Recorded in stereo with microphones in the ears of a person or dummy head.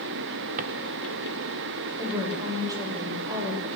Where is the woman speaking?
20° right (ahead or behind), 7 m.